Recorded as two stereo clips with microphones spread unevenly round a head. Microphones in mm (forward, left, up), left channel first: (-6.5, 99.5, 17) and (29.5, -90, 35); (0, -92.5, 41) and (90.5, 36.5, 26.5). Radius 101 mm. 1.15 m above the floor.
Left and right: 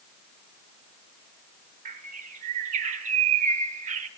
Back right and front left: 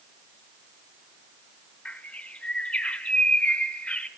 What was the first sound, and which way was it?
A bird, 50° right.